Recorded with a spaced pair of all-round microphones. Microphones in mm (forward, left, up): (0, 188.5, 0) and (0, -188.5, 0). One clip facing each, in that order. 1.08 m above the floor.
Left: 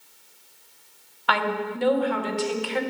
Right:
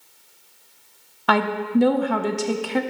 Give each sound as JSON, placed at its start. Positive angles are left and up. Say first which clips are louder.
{"t": 1.3, "sound": "a woman speaking", "louder": "right 7 dB", "side_deg": -60, "distance_m": 0.6}